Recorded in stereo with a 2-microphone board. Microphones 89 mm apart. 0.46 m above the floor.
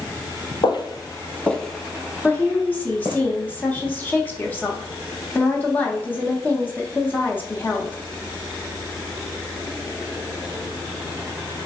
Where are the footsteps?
60° left (ahead or behind), 0.7 m; by 3.2 s 35° right (ahead or behind), 1.5 m.